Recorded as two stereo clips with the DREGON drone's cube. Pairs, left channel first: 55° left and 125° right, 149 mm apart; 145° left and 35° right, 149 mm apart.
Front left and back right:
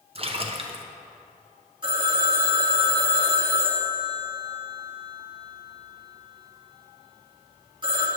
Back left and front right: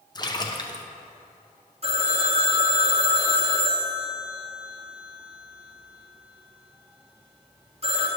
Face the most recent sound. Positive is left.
turn(degrees=-70)